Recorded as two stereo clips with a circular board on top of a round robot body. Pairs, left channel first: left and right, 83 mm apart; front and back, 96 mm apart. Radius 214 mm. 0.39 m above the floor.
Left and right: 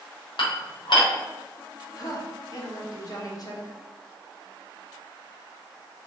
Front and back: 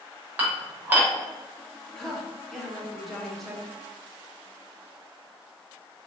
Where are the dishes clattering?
110° left, 1.5 m.